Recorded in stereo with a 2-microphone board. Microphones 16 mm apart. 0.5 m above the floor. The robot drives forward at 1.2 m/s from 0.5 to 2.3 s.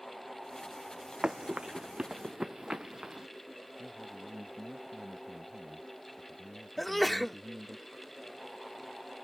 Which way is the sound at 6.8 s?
5° left (ahead or behind).